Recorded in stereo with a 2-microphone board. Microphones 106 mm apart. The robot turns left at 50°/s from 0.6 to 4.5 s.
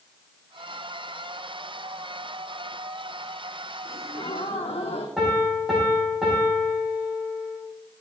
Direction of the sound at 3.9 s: 95° left.